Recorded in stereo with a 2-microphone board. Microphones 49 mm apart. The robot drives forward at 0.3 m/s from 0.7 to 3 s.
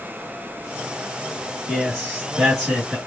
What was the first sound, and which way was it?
A man speaking, 5° left (ahead or behind).